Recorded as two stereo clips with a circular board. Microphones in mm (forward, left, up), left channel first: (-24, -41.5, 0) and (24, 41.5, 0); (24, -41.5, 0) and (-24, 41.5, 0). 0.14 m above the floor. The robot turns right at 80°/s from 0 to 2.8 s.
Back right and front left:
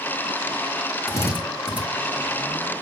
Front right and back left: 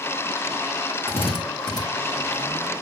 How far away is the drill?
About 3 m.